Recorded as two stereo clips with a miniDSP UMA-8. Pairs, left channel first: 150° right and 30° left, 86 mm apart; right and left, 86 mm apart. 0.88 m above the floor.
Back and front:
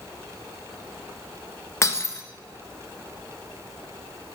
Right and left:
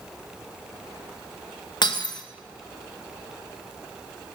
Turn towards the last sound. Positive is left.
turn(degrees=-100)